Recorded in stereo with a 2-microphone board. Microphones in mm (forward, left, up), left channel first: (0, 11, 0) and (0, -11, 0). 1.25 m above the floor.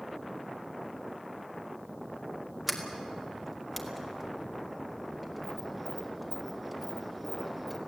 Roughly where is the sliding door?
Centre.